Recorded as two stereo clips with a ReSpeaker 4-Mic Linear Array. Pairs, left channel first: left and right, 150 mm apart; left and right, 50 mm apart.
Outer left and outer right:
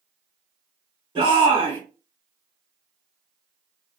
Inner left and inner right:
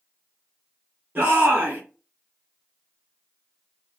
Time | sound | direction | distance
1.1 | a shout | 35° right (ahead or behind) | 1.6 m